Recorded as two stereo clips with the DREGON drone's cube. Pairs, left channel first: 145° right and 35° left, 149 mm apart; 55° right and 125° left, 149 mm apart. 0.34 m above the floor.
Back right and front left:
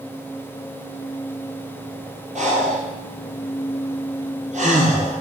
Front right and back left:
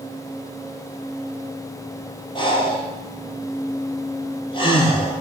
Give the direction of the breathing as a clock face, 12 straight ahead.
12 o'clock.